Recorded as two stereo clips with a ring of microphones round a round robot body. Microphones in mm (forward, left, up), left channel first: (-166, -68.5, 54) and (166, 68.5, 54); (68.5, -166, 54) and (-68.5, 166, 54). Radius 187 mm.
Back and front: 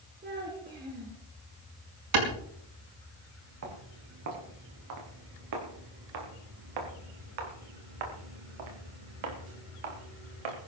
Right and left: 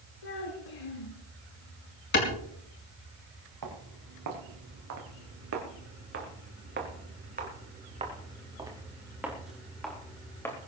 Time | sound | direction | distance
0.2 | a child speaking | 45° right | 3.5 m
2.1 | a clap | 10° right | 5 m
3.6 | footsteps | 75° left | 5.5 m